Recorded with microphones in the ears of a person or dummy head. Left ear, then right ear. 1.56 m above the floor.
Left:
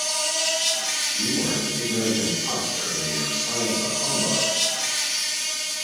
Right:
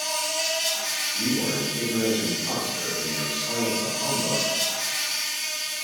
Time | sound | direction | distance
0.0 | an insect | 35° right (ahead or behind) | 1.7 m
1.1 | a man speaking | 5° left (ahead or behind) | 1.2 m